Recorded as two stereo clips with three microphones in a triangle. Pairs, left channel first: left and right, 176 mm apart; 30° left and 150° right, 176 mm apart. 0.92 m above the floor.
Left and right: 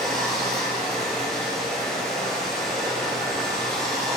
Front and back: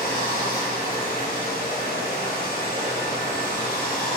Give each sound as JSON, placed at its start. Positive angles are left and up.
{"t": 0.0, "sound": "running water", "azimuth_deg": 0, "distance_m": 3.0}